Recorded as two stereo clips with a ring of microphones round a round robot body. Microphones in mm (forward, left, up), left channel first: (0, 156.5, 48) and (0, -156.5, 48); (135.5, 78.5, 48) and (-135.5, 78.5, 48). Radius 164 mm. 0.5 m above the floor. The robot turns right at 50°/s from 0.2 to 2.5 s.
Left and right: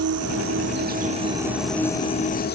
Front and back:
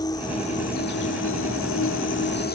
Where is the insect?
75° right; by 2.5 s 40° left.